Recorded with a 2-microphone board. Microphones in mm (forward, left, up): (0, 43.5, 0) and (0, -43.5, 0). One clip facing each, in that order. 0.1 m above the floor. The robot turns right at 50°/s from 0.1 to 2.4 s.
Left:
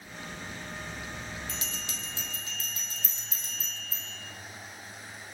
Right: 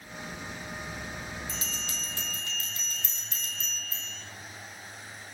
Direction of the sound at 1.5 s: 160° right.